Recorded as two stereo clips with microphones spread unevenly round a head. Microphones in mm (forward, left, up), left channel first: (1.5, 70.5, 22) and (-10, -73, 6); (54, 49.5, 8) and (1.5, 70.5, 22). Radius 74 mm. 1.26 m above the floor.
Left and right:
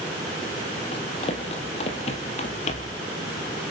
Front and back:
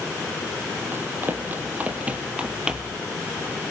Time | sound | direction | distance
0.9 | running footsteps | 130° left | 2.5 m